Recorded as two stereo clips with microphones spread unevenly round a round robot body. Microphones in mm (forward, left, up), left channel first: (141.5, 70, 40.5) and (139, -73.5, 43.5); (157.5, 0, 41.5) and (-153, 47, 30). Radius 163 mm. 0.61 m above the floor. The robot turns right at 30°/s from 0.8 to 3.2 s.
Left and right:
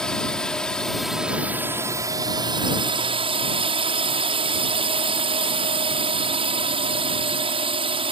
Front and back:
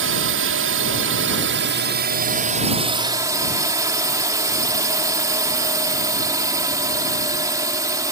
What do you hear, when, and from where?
0.0 s a drone: 170° left; by 8.1 s 115° right